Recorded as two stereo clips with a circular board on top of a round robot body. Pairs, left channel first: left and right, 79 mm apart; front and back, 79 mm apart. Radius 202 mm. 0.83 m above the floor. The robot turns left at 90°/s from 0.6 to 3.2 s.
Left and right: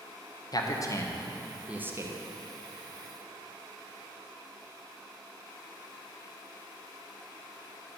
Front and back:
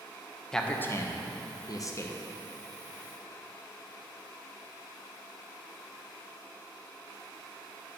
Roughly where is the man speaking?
Left.